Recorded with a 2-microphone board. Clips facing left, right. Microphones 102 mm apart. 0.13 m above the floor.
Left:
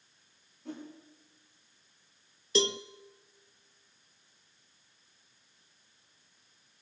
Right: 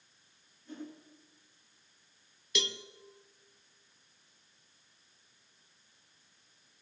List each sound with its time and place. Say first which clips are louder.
0.7 s a whoosh: left 2 dB; 80° left, 9.5 m
2.5 s a cowbell: left 9 dB; 35° left (ahead or behind), 0.9 m